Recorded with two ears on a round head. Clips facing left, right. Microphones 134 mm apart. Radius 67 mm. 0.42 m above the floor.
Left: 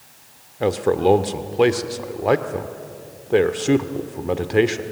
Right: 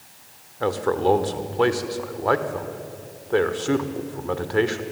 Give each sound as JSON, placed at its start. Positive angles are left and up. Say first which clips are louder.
{"t": 0.6, "sound": "a man speaking", "louder": "left 3 dB", "side_deg": 20, "distance_m": 0.8}